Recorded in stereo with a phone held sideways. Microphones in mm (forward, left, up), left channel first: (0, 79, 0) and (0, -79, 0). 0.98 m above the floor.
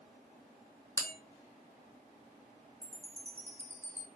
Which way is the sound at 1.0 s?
20° left (ahead or behind).